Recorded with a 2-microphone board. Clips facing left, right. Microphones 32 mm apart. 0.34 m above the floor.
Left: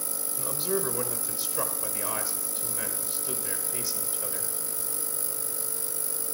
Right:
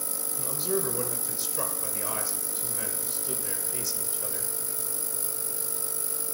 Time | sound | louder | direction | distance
0.4 | a man speaking | even | 20° left (ahead or behind) | 1.1 m